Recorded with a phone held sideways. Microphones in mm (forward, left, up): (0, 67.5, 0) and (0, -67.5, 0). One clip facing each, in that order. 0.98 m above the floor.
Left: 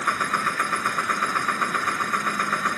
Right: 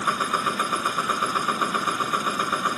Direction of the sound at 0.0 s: 15° right (ahead or behind).